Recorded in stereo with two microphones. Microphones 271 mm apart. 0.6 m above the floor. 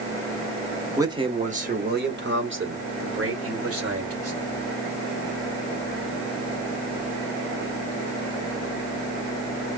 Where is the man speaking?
10° right (ahead or behind), 0.8 m; by 4.4 s 60° right (ahead or behind), 2.5 m.